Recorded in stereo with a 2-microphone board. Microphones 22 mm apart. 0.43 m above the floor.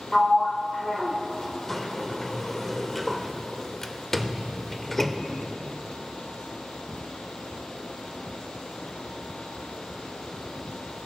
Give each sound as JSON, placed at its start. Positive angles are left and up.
{"t": 0.1, "sound": "a sliding door", "side_deg": 15, "distance_m": 0.6}